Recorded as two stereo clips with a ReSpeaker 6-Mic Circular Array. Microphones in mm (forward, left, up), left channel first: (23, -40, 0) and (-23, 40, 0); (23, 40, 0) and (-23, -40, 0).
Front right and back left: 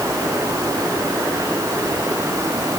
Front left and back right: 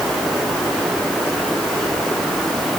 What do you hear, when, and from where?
Only background noise.